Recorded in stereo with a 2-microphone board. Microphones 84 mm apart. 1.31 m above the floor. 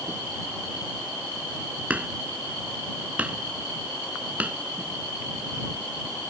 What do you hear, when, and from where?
1.9 s hammering: 15° right (ahead or behind)